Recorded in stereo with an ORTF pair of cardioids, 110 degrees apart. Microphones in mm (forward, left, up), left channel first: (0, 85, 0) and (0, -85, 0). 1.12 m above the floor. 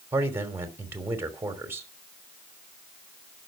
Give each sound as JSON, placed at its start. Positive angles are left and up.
{"t": 0.1, "sound": "a man speaking", "azimuth_deg": -15, "distance_m": 3.0}